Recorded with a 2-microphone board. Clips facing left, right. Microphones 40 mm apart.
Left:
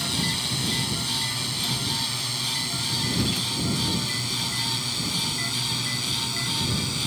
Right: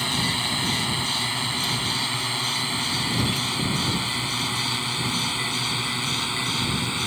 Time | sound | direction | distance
0.0 | a drone | 30° right (ahead or behind) | ?